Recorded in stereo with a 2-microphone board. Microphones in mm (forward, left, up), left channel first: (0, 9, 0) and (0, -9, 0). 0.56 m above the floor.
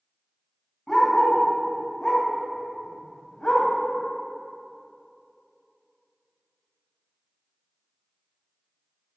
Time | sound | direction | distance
0.9 | a dog barking | 30° left (ahead or behind) | 1.5 m